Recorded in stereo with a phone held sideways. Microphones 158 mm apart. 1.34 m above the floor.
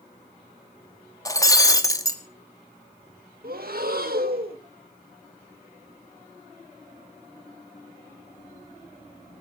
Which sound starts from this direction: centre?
Breaking glass, at 1.2 s.